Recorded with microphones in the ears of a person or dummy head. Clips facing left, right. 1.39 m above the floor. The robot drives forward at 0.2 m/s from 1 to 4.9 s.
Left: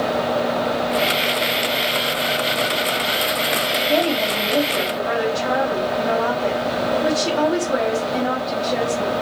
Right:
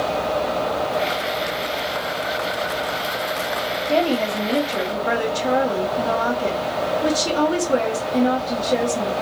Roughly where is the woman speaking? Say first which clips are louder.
Right 1 dB; right.